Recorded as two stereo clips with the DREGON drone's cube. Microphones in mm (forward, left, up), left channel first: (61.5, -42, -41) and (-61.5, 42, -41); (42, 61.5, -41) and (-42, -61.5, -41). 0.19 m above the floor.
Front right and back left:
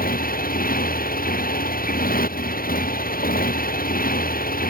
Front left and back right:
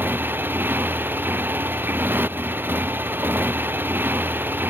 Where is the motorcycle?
50° right.